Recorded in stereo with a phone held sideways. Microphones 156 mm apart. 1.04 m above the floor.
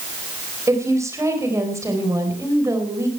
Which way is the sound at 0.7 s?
20° right (ahead or behind).